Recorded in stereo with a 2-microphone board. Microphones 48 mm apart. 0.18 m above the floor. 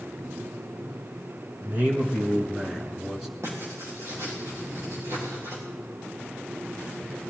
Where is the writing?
65° right (ahead or behind), 6 m.